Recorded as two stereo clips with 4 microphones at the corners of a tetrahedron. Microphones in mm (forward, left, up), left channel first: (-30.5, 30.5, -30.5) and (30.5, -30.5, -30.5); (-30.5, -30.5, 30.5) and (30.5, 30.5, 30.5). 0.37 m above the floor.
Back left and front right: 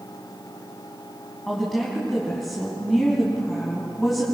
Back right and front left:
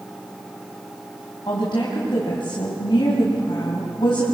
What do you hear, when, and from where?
1.5 s a woman speaking: 135° right, 3 m